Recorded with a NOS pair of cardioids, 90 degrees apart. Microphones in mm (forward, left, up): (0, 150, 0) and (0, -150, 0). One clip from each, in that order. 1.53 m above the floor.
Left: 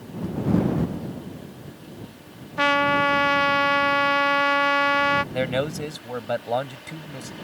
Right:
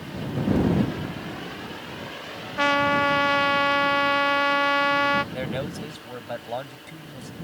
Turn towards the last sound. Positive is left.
turn(degrees=45)